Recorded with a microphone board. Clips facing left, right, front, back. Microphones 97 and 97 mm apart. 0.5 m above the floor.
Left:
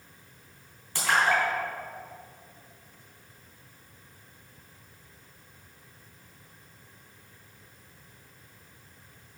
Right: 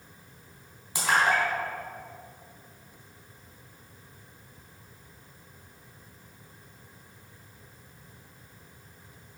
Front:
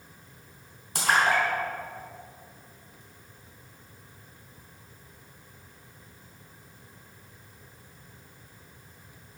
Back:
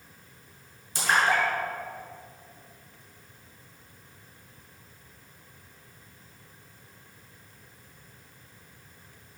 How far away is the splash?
About 3 m.